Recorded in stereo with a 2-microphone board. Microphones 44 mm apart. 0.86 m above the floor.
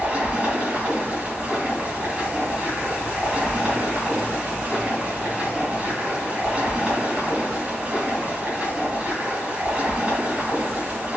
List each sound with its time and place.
0.0 s running water: 35° right (ahead or behind), 4.5 m